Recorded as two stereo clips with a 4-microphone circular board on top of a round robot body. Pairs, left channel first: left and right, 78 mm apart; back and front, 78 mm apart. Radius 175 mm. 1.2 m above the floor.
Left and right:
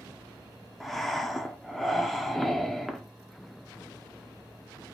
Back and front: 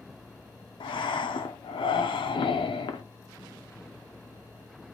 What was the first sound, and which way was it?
Breathing, straight behind.